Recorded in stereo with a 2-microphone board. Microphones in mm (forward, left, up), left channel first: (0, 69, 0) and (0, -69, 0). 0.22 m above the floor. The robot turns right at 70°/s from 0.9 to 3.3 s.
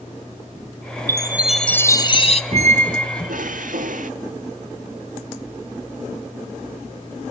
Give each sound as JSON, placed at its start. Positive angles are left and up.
{"t": 1.1, "sound": "a chime", "azimuth_deg": -30, "distance_m": 0.9}
{"t": 2.5, "sound": "a squeak", "azimuth_deg": -135, "distance_m": 0.8}